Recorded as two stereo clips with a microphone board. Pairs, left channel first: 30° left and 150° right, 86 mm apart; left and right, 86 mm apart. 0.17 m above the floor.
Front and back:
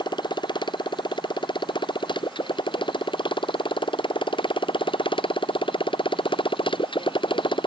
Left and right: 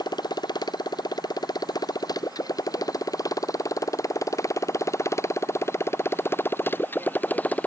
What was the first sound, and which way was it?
A motorcycle, 55° left.